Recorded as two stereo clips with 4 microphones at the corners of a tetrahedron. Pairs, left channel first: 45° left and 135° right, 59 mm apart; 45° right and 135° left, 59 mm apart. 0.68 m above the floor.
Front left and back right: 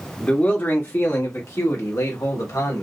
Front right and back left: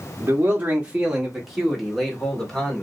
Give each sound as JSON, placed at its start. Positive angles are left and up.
{"t": 0.2, "sound": "a man speaking", "azimuth_deg": 95, "distance_m": 1.1}